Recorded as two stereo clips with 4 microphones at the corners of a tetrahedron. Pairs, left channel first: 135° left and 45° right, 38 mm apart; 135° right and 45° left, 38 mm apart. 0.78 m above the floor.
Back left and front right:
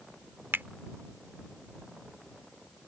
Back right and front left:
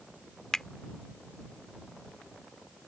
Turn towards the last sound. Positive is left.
turn(degrees=-60)